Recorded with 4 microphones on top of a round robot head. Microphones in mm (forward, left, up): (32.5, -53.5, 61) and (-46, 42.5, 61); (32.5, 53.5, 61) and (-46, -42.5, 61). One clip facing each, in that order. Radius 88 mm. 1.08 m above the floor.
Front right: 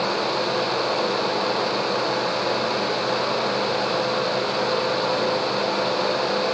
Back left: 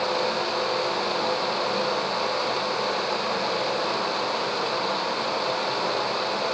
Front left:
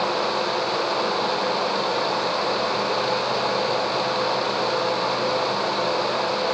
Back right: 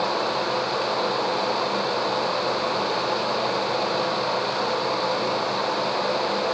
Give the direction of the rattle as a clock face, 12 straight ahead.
I don't hear a rattle.